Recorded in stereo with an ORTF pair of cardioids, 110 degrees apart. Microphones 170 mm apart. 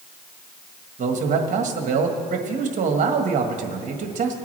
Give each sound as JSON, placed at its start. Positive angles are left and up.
{"t": 1.0, "sound": "a man speaking", "azimuth_deg": -45, "distance_m": 1.6}